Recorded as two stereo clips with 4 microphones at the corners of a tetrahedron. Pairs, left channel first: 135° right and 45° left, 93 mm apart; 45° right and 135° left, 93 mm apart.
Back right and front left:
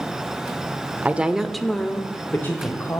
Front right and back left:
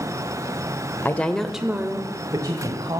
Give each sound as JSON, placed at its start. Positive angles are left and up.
{"t": 1.0, "sound": "a woman speaking", "azimuth_deg": -10, "distance_m": 0.8}